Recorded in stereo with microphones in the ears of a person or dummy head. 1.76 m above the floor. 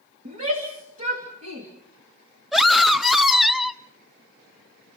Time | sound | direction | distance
0.2 | a shout | 40° right (ahead or behind) | 2.5 m
2.5 | a scream | centre (ahead or behind) | 0.8 m